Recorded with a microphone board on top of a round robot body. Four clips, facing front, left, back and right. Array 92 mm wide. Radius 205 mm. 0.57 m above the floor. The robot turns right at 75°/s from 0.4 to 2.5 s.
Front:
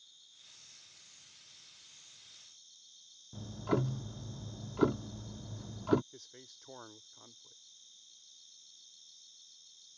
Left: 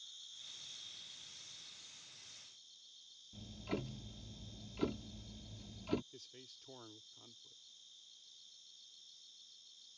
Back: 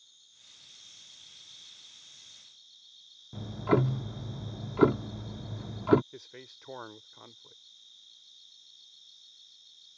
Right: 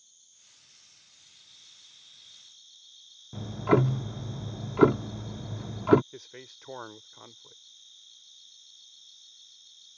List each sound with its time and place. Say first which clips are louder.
0.0 s an insect: left 7 dB, back 1 dB; 90° left; by 10.0 s 110° right
3.3 s ticking: right 19 dB, back 7 dB; 105° right
6.1 s a man speaking: right 12 dB, back 8 dB; 115° right